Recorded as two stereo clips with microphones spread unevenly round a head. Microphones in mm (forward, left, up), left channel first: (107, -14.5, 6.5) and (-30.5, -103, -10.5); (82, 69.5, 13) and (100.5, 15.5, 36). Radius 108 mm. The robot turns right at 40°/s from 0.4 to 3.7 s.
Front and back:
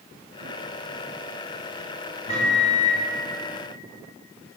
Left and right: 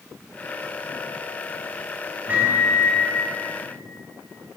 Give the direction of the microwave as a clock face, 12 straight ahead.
1 o'clock.